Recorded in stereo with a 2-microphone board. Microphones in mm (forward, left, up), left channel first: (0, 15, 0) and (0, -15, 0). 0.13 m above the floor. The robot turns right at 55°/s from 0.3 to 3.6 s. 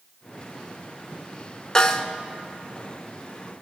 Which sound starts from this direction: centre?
A snare drum, at 1.8 s.